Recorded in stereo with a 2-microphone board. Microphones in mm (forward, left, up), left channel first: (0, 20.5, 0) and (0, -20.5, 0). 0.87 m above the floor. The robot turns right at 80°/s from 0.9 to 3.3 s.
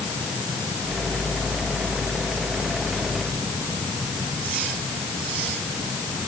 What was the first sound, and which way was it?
Only background noise.